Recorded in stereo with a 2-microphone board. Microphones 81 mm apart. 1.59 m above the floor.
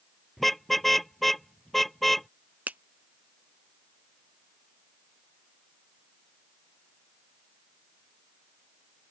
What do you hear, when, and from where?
0.4 s a car horn: centre (ahead or behind)
2.7 s a finger snap: 20° right (ahead or behind)